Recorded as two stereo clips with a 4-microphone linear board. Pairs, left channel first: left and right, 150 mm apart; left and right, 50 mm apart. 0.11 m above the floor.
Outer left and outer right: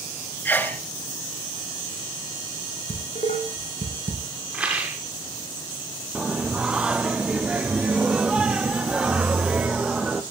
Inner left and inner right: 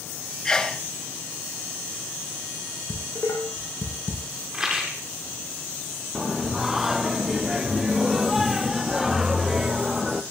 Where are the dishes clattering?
50° left (ahead or behind), 5.5 m.